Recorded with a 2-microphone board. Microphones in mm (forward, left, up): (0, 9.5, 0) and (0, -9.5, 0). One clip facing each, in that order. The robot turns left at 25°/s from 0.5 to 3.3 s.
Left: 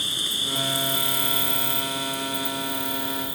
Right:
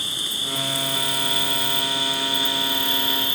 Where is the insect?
Straight ahead; by 3.4 s 70° right.